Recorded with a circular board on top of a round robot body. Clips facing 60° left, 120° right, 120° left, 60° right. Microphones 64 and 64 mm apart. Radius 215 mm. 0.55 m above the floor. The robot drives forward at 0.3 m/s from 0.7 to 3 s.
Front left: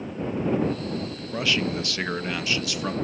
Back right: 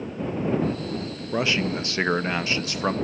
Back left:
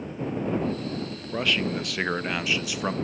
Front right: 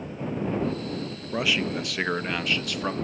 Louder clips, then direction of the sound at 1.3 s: Back right 2 dB, even; 130° right.